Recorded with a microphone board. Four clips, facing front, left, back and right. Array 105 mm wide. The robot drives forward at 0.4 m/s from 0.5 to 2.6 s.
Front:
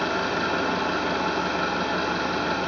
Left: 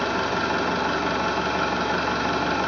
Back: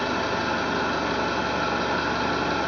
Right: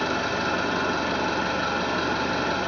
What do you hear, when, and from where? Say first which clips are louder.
0.0 s an engine running: left 2 dB, even; 70° left, 1.7 m; by 2.7 s 100° left, 1.6 m